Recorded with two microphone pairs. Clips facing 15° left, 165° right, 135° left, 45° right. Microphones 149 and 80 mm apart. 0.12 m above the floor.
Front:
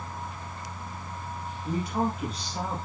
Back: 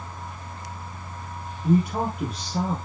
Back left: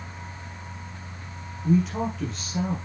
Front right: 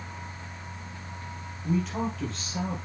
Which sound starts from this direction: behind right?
A man speaking, at 1.6 s.